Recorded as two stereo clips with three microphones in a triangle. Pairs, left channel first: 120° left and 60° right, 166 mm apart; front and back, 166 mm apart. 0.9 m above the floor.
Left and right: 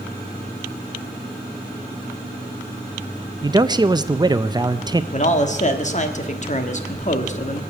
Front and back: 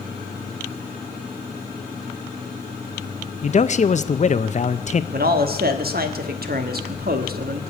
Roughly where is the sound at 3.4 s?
Ahead.